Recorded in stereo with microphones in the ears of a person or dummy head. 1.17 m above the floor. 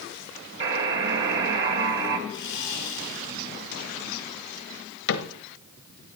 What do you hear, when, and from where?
0.6 s a buzzer: 65° right (ahead or behind), 1.7 m
2.3 s sawing: 65° left (ahead or behind), 3.5 m
5.1 s a cupboard door: 65° left (ahead or behind), 1.0 m